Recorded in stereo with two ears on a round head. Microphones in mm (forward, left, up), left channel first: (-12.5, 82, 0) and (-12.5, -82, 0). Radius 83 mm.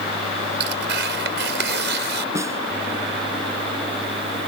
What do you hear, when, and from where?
0.6 s tearing paper: 70° right (ahead or behind)
2.4 s a snare drum: 15° right (ahead or behind)